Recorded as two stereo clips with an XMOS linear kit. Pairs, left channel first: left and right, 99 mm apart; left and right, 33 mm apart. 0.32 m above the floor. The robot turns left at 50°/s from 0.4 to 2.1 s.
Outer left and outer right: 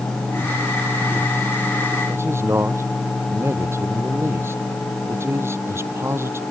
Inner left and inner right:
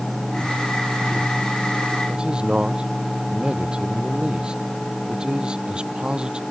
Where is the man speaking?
25° right (ahead or behind).